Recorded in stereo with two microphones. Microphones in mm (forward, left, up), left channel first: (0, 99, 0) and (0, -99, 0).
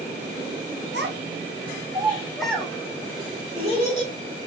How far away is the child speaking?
About 0.8 m.